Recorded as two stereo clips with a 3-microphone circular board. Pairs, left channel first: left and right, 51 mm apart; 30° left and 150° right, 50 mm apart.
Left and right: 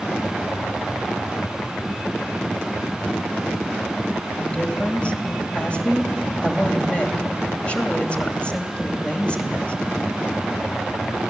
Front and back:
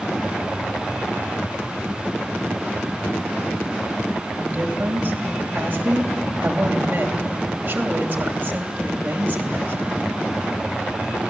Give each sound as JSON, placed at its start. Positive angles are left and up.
{"t": 4.4, "sound": "a woman speaking", "azimuth_deg": 155, "distance_m": 2.5}